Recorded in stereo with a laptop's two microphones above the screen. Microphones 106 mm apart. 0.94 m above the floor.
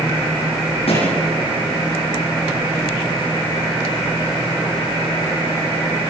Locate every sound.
0.9 s a thud: 65° left (ahead or behind), 8.5 m